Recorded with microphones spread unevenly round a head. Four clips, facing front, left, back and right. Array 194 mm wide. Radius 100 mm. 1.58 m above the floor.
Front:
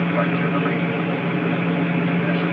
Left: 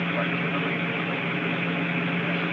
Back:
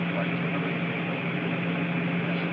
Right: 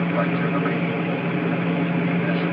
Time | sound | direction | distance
0.0 | an aircraft | 35° right | ?